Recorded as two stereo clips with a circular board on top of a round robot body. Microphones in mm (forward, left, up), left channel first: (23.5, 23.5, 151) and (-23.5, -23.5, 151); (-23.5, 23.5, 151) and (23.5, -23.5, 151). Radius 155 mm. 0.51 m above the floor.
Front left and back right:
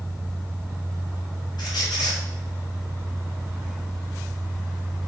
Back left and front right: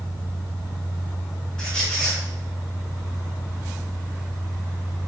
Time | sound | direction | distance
1.6 | a squeak | 55° left | 1.3 m